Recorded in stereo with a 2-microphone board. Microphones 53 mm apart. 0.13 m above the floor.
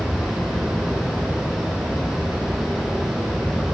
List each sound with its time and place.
0.0 s running water: 5° right (ahead or behind), 2 m